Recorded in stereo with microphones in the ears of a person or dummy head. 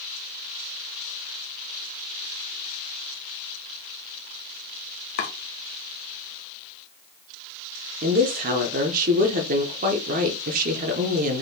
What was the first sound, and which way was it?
Chopping, 40° left (ahead or behind).